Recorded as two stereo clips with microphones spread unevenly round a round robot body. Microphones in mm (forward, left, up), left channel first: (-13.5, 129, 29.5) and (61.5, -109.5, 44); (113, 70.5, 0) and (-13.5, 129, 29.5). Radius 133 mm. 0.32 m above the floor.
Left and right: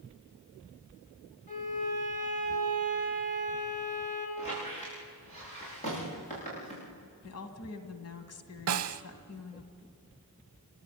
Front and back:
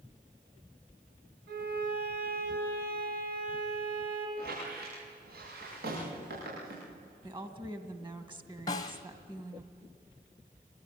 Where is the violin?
170° left, 5 m.